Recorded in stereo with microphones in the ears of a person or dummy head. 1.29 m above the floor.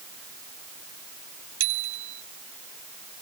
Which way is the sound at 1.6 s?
70° right (ahead or behind).